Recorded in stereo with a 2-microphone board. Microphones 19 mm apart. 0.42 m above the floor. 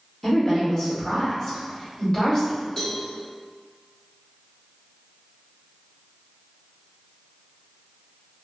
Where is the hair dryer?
No hair dryer in this recording.